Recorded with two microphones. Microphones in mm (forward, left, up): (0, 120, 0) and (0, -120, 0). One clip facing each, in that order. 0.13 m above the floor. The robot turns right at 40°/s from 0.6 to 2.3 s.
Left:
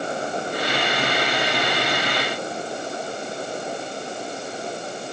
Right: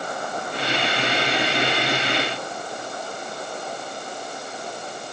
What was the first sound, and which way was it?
Only background noise.